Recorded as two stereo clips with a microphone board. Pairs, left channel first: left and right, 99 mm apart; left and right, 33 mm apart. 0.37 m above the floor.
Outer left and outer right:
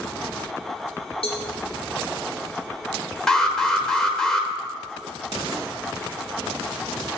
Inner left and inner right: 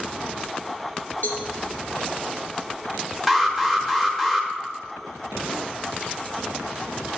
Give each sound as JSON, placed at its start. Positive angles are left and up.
{"t": 1.2, "sound": "a cowbell", "side_deg": 80, "distance_m": 2.5}
{"t": 3.3, "sound": "an alarm", "side_deg": 5, "distance_m": 1.0}